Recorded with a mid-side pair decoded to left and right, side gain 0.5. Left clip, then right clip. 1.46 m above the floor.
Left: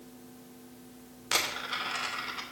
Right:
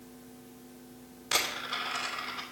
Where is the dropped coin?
15° left, 2.5 m.